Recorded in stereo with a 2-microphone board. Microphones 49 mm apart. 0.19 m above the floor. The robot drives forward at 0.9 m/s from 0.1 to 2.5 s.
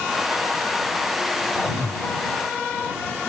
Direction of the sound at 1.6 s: Centre (ahead or behind).